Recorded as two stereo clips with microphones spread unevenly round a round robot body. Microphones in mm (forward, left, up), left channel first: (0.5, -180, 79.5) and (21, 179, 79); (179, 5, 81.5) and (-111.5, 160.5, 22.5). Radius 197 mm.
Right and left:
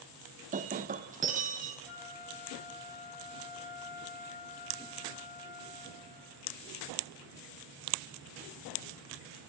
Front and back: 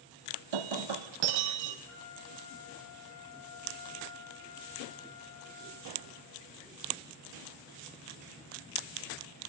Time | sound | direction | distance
0.5 | breaking glass | 155° left | 0.9 m
1.9 | a flute | 85° right | 2.5 m